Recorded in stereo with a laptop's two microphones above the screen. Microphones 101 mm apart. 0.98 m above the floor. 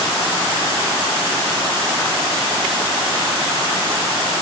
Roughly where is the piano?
I don't hear a piano.